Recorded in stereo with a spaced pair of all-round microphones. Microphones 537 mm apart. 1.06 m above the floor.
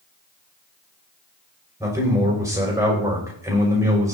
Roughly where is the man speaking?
Centre.